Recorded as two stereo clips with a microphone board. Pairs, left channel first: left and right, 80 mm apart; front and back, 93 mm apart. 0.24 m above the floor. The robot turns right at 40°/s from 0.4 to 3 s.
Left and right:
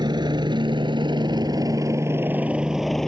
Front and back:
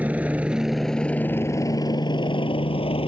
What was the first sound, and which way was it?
A helicopter, 105° right.